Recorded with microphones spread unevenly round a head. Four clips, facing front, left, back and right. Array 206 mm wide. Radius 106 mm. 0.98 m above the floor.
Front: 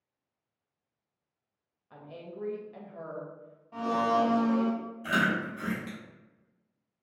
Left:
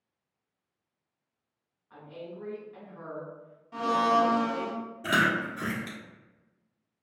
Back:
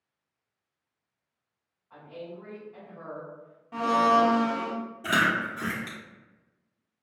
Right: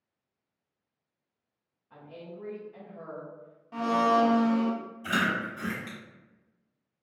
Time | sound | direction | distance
1.9 | a woman speaking | 15° right | 1.0 m
3.7 | a blender | 155° right | 0.8 m
5.0 | chewing | 135° left | 1.8 m